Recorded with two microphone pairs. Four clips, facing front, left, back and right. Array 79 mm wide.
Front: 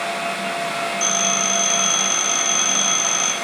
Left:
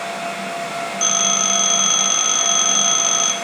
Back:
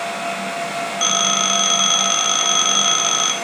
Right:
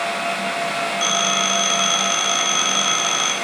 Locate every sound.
1.0 s a phone ringing: 175° right, 1.0 m